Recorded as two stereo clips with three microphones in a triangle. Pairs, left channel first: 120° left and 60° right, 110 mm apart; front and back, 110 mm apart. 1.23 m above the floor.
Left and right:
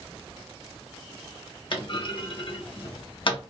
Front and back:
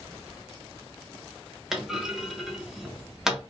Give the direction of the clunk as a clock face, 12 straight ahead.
9 o'clock.